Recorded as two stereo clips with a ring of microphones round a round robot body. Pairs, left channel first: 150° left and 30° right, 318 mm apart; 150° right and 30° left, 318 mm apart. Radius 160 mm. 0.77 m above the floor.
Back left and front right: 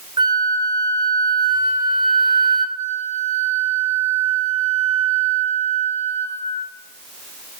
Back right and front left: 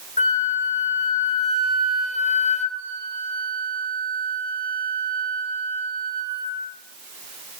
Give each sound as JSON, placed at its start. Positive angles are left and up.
{"t": 0.2, "sound": "a flute", "azimuth_deg": -95, "distance_m": 0.8}
{"t": 2.8, "sound": "a flute", "azimuth_deg": 40, "distance_m": 1.3}